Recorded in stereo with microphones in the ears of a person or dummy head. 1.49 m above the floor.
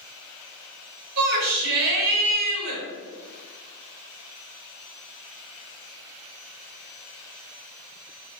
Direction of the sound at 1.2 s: 55° right (ahead or behind).